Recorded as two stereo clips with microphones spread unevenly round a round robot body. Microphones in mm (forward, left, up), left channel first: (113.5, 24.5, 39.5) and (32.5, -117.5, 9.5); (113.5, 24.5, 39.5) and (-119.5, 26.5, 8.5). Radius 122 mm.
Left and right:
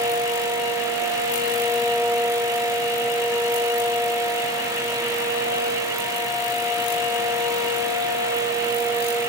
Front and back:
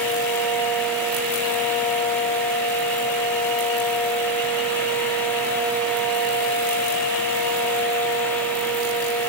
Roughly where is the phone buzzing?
I don't hear a phone buzzing.